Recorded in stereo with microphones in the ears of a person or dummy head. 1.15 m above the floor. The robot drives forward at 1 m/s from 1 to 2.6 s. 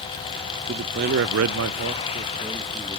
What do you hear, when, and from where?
0.7 s a man speaking: 45° right (ahead or behind), 0.6 m; by 3.0 s 20° right (ahead or behind), 1.3 m